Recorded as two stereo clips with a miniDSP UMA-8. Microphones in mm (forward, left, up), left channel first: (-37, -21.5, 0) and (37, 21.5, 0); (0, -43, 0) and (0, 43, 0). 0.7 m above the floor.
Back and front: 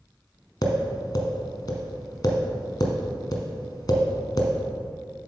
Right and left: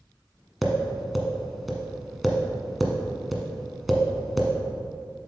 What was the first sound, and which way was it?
Tapping, straight behind.